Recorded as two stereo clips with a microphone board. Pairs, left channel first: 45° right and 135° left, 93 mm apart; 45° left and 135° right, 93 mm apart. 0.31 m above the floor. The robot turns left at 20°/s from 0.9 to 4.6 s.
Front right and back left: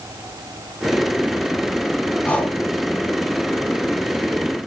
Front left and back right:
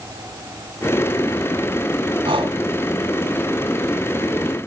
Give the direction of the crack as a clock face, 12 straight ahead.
I don't hear a crack.